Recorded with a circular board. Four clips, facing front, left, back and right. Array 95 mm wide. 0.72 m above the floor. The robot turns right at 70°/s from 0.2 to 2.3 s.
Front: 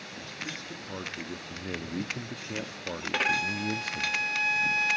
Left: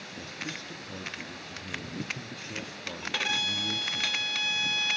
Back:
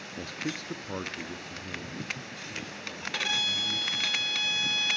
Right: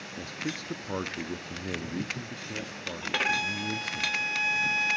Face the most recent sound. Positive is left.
turn(degrees=-35)